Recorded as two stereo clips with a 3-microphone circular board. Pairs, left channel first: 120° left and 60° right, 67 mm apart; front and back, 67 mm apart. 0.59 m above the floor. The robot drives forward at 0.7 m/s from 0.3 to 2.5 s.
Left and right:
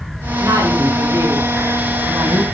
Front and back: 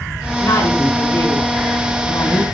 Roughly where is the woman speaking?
Ahead.